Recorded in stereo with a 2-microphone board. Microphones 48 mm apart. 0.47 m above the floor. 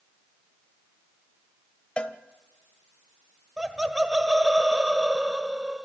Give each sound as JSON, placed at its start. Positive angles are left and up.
{"t": 2.0, "sound": "a cowbell", "side_deg": 25, "distance_m": 0.9}
{"t": 3.6, "sound": "laughter", "side_deg": -10, "distance_m": 1.6}